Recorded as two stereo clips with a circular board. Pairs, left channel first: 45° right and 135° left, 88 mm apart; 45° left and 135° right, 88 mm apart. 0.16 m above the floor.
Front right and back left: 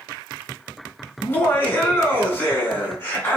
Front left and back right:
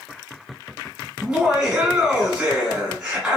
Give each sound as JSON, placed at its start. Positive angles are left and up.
{"t": 1.2, "sound": "laughter", "azimuth_deg": -70, "distance_m": 1.8}